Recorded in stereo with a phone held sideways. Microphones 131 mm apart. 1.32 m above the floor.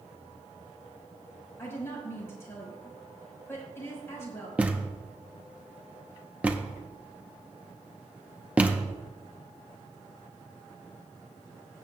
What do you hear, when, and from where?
1.6 s a woman speaking: 20° left (ahead or behind), 5 m
4.6 s a thud: 10° right (ahead or behind), 0.8 m